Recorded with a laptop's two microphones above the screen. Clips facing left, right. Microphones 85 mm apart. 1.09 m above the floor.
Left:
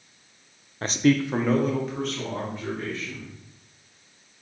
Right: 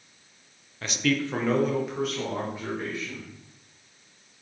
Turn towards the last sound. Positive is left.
turn(degrees=-10)  # may be behind; listen again after turning